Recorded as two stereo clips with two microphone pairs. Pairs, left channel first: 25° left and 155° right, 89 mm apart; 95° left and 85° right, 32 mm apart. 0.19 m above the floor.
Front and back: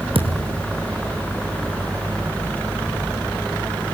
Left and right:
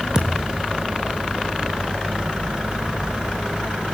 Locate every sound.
0.1 s a thud: 150° right, 3 m